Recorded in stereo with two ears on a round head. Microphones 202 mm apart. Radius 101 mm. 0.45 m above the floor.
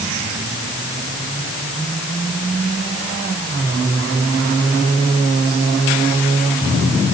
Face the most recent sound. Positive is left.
No sound to turn to.